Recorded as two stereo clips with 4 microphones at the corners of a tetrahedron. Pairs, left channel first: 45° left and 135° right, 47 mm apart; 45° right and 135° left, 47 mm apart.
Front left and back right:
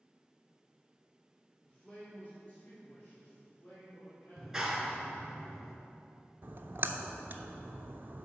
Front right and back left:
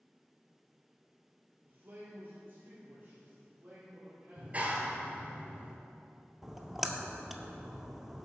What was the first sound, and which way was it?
A man speaking, 105° left.